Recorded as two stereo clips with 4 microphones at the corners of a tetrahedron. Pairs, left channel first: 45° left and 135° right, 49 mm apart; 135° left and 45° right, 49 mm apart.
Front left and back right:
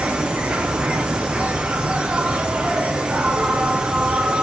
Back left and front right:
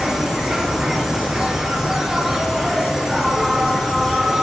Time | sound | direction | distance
0.0 | an insect | 100° right | 0.7 m